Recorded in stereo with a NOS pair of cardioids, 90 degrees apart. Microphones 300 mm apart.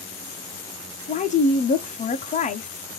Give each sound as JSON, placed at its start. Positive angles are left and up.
{"t": 1.1, "sound": "a woman speaking", "azimuth_deg": 25, "distance_m": 0.6}